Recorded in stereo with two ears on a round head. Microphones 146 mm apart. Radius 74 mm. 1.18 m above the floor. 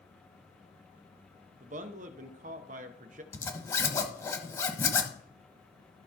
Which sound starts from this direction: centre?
A zipper, at 3.3 s.